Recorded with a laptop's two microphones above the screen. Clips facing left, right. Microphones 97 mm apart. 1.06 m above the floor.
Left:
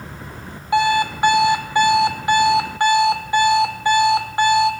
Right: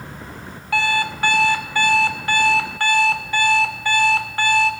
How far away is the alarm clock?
About 1.5 m.